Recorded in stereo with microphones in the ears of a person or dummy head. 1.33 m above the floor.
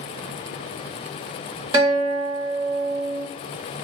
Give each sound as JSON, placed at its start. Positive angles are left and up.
{"t": 1.7, "sound": "a guitar", "side_deg": -30, "distance_m": 2.0}